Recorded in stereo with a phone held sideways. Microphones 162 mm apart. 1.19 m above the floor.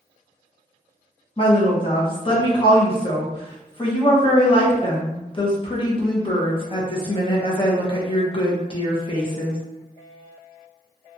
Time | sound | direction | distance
1.4 | a woman speaking | 30° left (ahead or behind) | 0.8 m